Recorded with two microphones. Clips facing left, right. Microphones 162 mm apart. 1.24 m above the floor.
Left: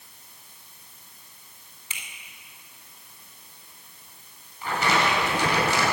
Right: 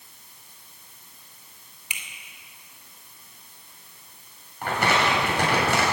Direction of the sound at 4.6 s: 60° right (ahead or behind).